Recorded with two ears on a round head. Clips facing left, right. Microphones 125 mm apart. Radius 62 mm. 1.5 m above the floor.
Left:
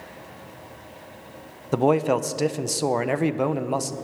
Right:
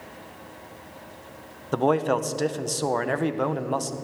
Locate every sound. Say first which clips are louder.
1.7 s a man speaking: left 2 dB; 10° left (ahead or behind), 0.7 m